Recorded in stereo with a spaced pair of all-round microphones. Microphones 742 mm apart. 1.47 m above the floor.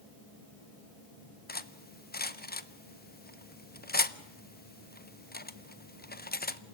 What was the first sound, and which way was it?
Cutlery clinking, 15° left (ahead or behind).